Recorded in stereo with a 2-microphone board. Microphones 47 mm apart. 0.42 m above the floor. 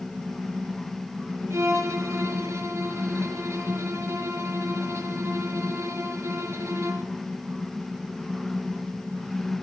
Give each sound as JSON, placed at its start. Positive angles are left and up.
{"t": 1.5, "sound": "a violin", "side_deg": -85, "distance_m": 5.0}